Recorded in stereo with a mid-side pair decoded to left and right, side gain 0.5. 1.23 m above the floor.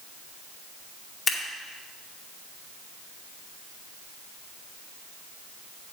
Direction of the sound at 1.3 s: 40° left.